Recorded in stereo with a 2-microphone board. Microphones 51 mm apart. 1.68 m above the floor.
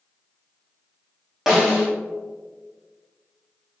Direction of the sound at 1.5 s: 10° right (ahead or behind).